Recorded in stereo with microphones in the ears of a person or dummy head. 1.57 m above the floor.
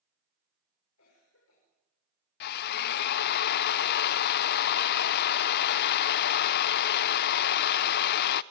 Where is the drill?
55° left (ahead or behind), 0.6 m.